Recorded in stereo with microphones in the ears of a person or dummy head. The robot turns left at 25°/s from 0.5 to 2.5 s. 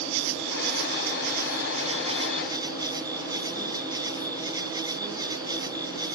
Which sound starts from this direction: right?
An insect, at 0.0 s.